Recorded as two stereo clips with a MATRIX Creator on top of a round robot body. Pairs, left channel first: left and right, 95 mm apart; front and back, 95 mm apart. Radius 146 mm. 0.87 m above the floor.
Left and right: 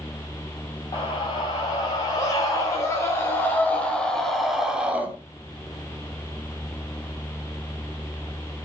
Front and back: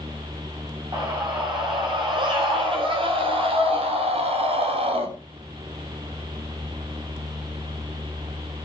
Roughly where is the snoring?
I don't hear snoring.